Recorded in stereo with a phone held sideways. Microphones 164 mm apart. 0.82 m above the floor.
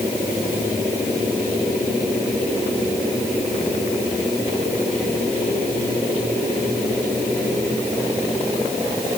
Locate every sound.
Only background noise.